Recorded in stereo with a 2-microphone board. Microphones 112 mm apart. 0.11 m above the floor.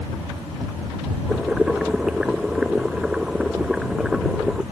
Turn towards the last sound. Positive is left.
turn(degrees=-5)  # may be behind; listen again after turning